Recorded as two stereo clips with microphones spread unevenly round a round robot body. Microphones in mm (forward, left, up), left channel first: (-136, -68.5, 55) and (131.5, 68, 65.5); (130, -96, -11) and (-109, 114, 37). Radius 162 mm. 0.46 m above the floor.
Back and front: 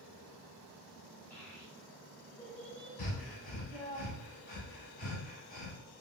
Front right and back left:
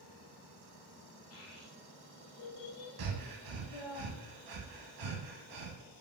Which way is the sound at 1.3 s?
75° right.